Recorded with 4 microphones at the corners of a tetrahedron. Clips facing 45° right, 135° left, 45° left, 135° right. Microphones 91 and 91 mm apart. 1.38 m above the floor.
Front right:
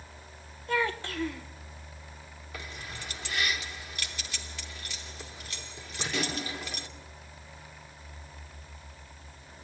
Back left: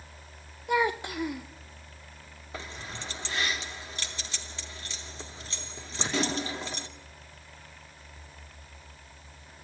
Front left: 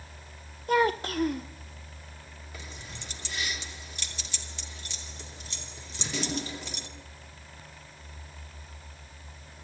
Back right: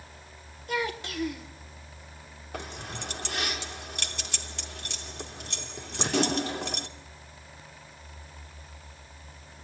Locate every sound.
0.7 s a child speaking: 65° left, 0.6 m
2.5 s keys jangling: 165° right, 2 m